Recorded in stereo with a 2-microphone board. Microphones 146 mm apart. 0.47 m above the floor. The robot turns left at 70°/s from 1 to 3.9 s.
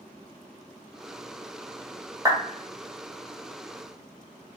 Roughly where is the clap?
Right.